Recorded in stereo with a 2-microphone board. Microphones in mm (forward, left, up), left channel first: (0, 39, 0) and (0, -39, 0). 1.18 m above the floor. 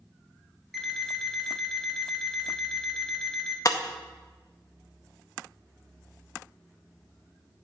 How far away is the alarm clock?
About 0.8 m.